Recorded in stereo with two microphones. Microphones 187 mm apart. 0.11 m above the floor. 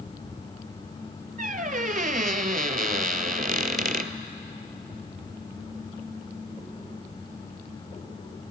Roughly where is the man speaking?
No man speaking in this recording.